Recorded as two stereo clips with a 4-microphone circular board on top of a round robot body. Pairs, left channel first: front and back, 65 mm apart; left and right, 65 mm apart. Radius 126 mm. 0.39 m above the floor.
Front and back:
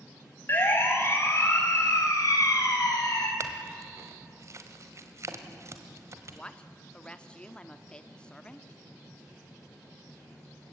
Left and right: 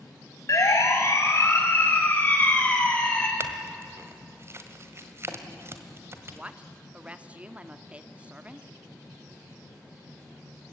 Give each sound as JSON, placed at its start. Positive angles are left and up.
{"t": 0.5, "sound": "a siren", "azimuth_deg": 55, "distance_m": 4.0}
{"t": 3.4, "sound": "a clink", "azimuth_deg": -140, "distance_m": 1.7}
{"t": 6.3, "sound": "a woman speaking", "azimuth_deg": -50, "distance_m": 1.2}